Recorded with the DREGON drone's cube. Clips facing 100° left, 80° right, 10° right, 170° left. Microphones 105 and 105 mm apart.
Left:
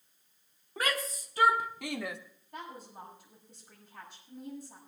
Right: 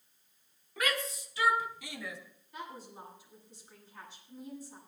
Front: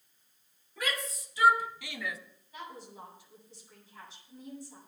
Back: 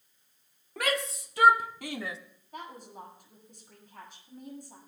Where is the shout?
155° left, 1.9 m; by 2.2 s 110° left, 1.1 m.